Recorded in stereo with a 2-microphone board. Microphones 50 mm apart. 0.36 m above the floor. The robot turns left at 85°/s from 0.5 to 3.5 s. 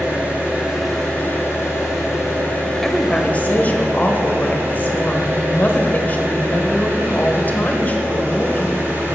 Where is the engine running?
150° right, 4.5 m; by 9.2 s 45° right, 4.5 m.